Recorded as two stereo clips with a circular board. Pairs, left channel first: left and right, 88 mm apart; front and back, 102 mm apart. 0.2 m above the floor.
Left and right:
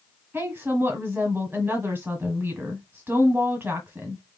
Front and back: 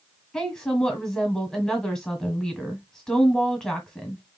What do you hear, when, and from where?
0.3 s a woman speaking: 80° right, 1.4 m